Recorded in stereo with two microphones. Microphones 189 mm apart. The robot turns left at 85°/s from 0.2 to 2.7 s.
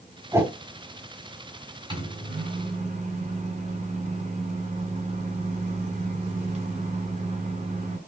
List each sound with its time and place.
0.3 s a whoosh: 15° right (ahead or behind), 0.7 m; by 0.5 s 10° right (ahead or behind), 0.7 m
1.9 s a microwave: 40° right, 1.7 m; by 8.0 s 105° right, 1.7 m